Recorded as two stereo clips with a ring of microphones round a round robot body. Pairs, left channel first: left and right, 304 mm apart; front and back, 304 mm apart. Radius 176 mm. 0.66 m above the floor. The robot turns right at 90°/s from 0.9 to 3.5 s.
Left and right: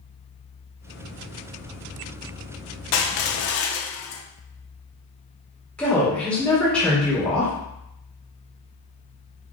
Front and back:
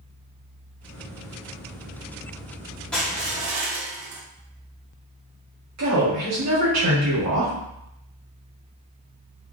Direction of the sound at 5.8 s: 175° left.